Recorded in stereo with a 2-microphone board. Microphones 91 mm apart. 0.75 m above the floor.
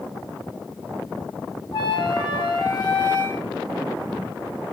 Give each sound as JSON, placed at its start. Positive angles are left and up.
{"t": 1.7, "sound": "a flute", "side_deg": 60, "distance_m": 1.3}